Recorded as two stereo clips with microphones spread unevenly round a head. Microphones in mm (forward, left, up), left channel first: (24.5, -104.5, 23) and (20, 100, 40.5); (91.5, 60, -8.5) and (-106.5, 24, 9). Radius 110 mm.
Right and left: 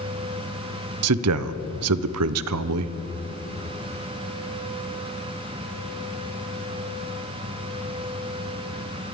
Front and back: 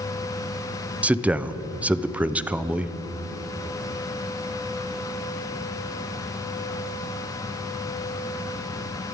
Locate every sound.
1.0 s a man speaking: 105° left, 0.6 m